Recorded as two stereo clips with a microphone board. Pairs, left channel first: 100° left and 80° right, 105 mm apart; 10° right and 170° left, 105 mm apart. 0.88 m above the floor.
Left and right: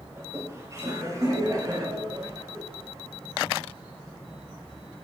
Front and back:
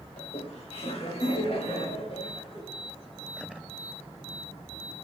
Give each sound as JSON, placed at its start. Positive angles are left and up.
{"t": 0.2, "sound": "laughter", "azimuth_deg": -15, "distance_m": 4.5}